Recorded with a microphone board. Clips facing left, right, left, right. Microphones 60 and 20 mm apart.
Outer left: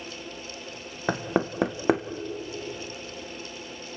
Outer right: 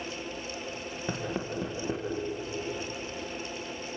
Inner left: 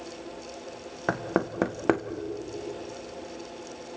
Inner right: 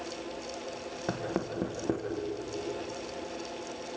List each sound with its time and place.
1.1 s knocking: 70° left (ahead or behind), 1.4 m